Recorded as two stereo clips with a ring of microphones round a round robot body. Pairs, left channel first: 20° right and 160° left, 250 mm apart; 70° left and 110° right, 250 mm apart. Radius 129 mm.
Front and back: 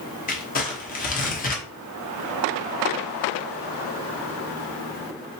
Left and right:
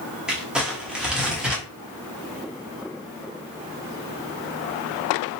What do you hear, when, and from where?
0.3 s crumpling: 30° right, 0.8 m